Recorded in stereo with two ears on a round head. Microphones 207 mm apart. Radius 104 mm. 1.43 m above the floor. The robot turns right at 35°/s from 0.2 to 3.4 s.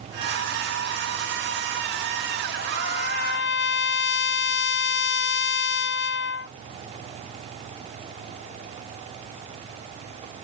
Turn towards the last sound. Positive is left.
turn(degrees=50)  # may be behind; listen again after turning